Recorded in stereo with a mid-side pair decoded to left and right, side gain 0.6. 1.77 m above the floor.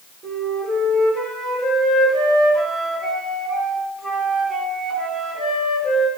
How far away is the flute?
About 4 m.